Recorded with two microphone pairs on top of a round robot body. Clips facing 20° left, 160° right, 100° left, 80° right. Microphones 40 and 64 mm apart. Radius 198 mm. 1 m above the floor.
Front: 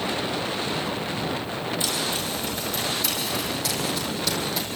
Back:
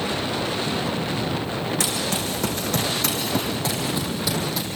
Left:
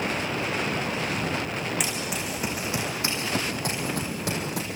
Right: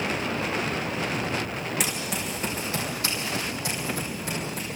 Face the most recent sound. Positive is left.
turn(degrees=105)